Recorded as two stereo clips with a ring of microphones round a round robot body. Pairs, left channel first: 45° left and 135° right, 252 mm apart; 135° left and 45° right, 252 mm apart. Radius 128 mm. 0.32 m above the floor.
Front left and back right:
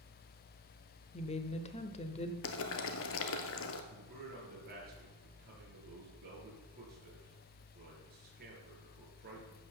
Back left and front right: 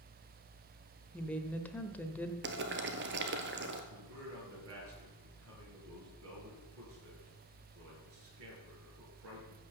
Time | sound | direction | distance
1.1 | a woman speaking | 60° left | 1.0 m
2.4 | boiling | 5° left | 1.2 m
3.9 | a man speaking | 80° right | 5.5 m